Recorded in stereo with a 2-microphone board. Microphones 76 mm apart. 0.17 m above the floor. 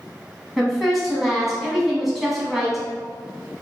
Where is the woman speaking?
5° right (ahead or behind), 1.1 m.